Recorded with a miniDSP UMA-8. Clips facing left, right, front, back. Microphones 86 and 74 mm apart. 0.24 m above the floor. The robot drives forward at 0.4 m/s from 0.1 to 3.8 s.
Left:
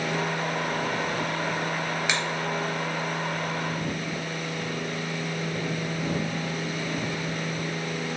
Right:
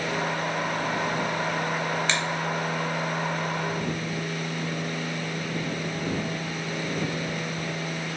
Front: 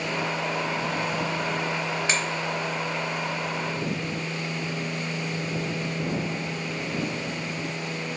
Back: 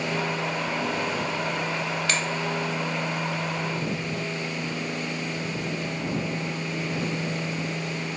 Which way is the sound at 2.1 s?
30° left.